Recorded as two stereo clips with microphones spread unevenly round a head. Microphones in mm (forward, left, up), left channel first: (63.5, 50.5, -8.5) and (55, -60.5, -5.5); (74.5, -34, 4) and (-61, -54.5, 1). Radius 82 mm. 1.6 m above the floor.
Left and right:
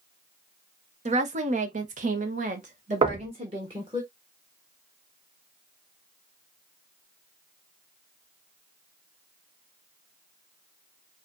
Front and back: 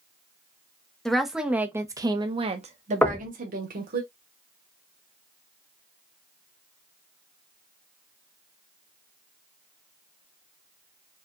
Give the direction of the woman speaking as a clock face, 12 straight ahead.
3 o'clock.